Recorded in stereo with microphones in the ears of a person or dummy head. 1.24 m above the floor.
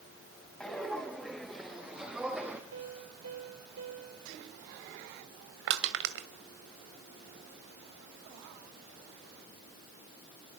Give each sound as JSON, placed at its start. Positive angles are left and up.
{"t": 0.6, "sound": "footsteps", "side_deg": 5, "distance_m": 4.5}
{"t": 2.7, "sound": "a piano", "side_deg": -80, "distance_m": 6.0}
{"t": 5.7, "sound": "crushing", "side_deg": -60, "distance_m": 1.7}